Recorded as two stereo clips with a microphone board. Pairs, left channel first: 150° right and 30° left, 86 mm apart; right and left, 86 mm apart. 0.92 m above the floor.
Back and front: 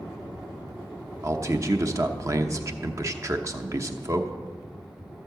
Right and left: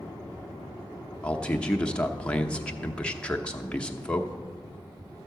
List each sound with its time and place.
1.2 s a man speaking: 15° right, 0.8 m